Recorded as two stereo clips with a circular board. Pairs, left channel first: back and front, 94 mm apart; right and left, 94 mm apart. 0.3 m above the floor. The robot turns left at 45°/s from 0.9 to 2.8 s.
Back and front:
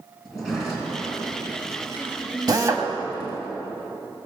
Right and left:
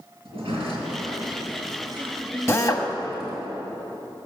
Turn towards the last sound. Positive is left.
turn(degrees=-50)